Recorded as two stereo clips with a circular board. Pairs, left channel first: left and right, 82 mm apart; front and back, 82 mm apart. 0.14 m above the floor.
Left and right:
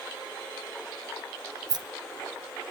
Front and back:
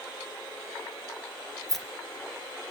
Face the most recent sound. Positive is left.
turn(degrees=-85)